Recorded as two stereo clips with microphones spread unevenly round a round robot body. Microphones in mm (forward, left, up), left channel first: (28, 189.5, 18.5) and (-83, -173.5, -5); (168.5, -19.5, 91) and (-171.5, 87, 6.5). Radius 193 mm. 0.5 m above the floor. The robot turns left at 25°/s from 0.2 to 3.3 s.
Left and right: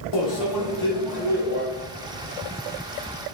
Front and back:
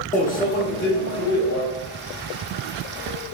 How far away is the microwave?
About 0.7 m.